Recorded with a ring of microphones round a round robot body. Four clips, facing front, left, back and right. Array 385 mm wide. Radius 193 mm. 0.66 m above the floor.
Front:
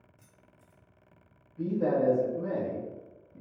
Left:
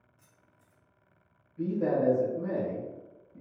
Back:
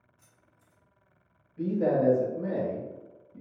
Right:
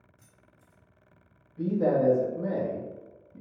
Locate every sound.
0.2 s keys jangling: 30° right, 1.0 m
1.6 s a man speaking: 115° right, 0.7 m